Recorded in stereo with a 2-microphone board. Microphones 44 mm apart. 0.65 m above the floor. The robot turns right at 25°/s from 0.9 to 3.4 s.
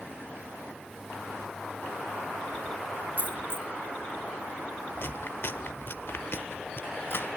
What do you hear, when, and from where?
3.2 s a dropped coin: 40° right (ahead or behind), 1.0 m; by 3.7 s 45° right (ahead or behind), 1.0 m
5.0 s chewing: 55° left (ahead or behind), 1.0 m